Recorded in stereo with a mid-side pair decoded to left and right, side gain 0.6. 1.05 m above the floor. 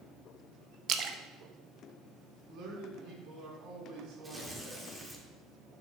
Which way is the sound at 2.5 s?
65° right.